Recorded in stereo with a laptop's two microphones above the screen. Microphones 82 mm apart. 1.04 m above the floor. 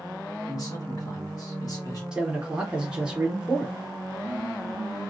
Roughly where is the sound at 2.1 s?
Centre.